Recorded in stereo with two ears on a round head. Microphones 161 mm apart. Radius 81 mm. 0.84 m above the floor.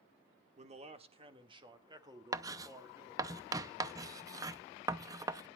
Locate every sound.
0.6 s a man speaking: 35° right (ahead or behind), 1.5 m; by 3.3 s 15° right (ahead or behind), 2.5 m
2.3 s writing: 20° right (ahead or behind), 0.5 m